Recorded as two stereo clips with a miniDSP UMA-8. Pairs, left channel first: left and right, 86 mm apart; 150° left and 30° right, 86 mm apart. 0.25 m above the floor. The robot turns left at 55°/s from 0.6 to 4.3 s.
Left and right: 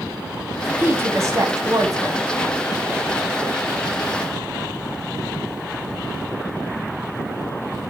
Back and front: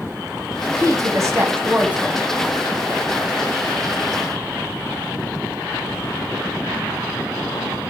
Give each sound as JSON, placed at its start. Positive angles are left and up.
{"t": 0.8, "sound": "a woman speaking", "azimuth_deg": -35, "distance_m": 1.3}